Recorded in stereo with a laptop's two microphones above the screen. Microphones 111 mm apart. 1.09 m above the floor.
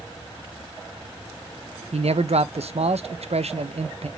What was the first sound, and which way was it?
A man speaking, 80° right.